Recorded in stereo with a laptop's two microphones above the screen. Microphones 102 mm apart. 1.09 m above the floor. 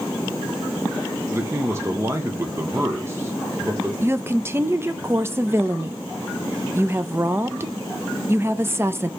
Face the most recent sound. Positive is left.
turn(degrees=-25)  # may be behind; listen again after turning